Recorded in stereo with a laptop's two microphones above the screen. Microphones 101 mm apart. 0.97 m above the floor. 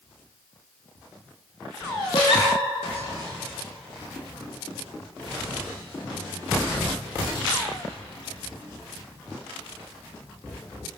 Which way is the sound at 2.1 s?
50° left (ahead or behind).